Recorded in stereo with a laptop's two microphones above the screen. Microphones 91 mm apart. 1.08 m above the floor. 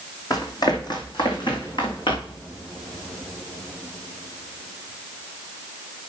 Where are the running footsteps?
45° left (ahead or behind), 2 m; by 2.4 s 70° left (ahead or behind), 3.5 m.